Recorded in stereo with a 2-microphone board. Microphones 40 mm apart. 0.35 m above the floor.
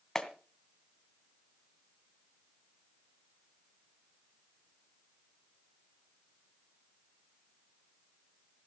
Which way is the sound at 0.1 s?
10° left (ahead or behind).